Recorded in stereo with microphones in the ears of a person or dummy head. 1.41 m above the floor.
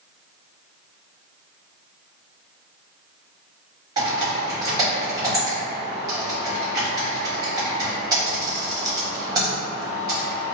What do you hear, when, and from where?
4.0 s typing on a keyboard: 20° right (ahead or behind), 1.1 m